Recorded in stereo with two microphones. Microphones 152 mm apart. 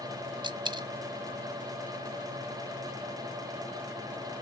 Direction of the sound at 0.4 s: 30° right (ahead or behind).